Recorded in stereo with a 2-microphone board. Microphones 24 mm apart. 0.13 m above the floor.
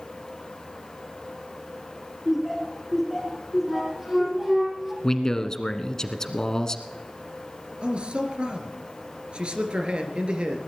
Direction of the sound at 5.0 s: 25° left (ahead or behind).